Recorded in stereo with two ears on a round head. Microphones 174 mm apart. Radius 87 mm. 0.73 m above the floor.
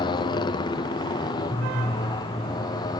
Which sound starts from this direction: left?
A motorcycle, at 0.0 s.